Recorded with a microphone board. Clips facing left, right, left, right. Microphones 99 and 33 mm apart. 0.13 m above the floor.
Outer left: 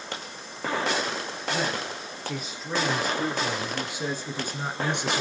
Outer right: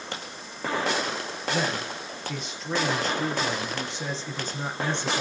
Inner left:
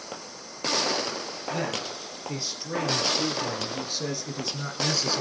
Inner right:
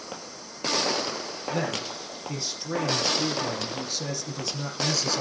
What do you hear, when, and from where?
1.5 s a man speaking: 5° left (ahead or behind), 4 m; by 5.2 s 15° left (ahead or behind), 1.7 m